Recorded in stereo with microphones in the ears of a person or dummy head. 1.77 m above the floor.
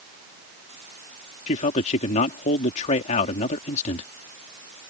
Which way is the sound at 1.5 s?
45° left (ahead or behind).